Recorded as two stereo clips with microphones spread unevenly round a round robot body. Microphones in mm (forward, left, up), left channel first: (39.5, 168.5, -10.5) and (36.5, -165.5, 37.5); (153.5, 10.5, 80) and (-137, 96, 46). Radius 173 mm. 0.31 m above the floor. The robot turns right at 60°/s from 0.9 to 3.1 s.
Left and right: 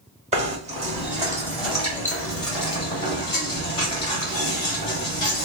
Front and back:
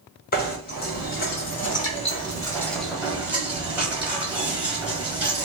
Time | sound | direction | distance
0.3 | knocking | 30° right | 1.2 m